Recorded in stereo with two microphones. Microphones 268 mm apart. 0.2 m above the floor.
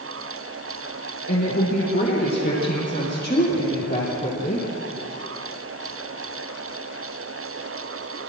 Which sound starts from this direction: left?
A woman speaking, at 1.3 s.